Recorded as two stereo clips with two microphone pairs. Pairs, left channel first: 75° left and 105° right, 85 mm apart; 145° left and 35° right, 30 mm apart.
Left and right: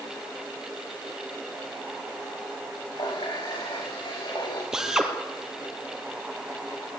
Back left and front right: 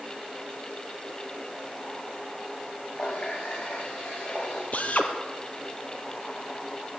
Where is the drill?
170° left, 3 m.